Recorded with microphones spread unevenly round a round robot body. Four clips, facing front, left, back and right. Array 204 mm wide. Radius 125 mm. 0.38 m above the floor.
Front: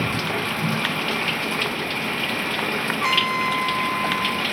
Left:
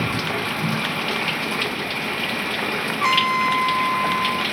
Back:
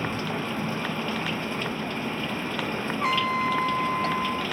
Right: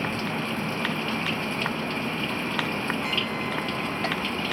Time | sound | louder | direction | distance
0.0 | running water | left 4 dB, front 4 dB | 35° left | ?
3.0 | a trumpet | left 10 dB, front 1 dB | 65° left | ?